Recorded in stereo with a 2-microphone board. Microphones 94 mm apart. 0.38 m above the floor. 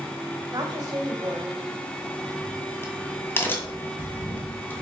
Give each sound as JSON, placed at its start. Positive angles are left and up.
{"t": 0.5, "sound": "a woman speaking", "side_deg": -40, "distance_m": 1.4}
{"t": 2.0, "sound": "a crack", "side_deg": 25, "distance_m": 1.4}